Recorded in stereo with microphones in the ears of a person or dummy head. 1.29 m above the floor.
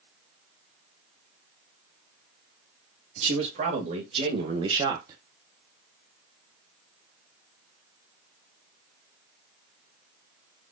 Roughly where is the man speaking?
Right.